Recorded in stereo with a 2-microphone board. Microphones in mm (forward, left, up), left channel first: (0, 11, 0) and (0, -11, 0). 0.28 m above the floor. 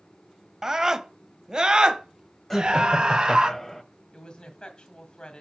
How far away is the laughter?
About 1.5 m.